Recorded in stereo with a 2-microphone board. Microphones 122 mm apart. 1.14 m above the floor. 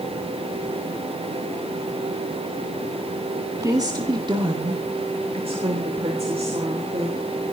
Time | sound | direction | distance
3.6 | a woman speaking | 30° right (ahead or behind) | 1.9 m